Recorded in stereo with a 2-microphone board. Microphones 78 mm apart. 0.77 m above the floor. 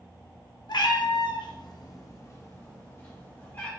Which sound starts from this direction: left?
A cat meowing, at 0.7 s.